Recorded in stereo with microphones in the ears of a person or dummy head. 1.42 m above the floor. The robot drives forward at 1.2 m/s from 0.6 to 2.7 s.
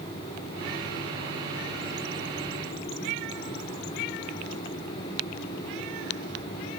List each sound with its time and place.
Only background noise.